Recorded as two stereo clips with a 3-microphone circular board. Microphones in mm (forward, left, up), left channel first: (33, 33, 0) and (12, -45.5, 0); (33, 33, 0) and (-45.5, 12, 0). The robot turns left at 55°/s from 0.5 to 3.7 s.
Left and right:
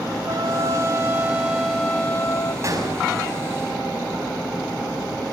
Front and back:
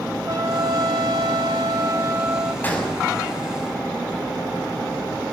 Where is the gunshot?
55° right, 6 m; by 3.1 s 75° right, 6 m.